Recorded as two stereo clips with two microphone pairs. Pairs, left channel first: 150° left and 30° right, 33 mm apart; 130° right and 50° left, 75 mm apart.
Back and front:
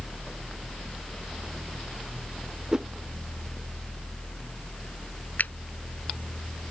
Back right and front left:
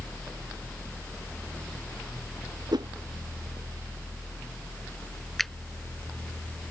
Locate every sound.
2.7 s a whoosh: 35° left
5.4 s a finger snap: 145° left